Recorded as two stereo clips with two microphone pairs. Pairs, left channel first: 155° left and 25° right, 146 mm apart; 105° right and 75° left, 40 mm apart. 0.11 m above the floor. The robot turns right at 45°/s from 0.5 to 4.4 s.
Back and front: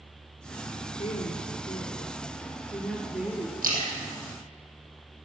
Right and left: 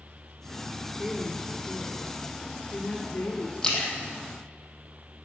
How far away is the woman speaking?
About 1.4 m.